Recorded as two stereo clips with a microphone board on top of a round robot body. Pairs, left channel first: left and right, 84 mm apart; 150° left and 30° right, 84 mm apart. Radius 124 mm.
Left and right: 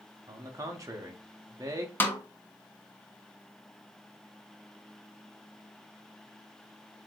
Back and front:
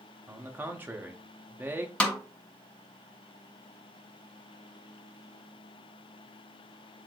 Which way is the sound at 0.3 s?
85° right.